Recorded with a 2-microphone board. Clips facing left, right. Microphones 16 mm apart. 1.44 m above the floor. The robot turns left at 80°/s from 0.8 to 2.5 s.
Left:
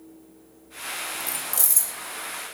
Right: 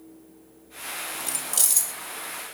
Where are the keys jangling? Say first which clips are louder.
Right 1 dB; 45° right (ahead or behind), 0.7 m; by 1.9 s 30° right (ahead or behind), 0.7 m.